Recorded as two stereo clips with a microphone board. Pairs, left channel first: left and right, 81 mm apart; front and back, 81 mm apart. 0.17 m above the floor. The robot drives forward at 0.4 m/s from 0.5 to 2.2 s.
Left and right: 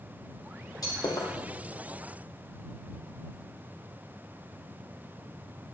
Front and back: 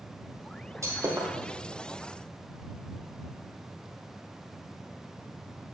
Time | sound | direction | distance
0.8 | breaking glass | 130° left | 2.5 m